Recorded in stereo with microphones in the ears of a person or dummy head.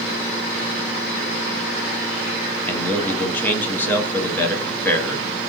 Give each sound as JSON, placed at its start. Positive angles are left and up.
{"t": 2.7, "sound": "a man speaking", "side_deg": 10, "distance_m": 0.7}